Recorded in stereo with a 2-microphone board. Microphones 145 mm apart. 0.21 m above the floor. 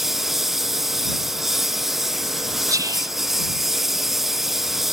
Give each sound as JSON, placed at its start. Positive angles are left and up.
{"t": 0.0, "sound": "a lawn mower", "side_deg": 0}
{"t": 2.7, "sound": "whispering", "side_deg": -25}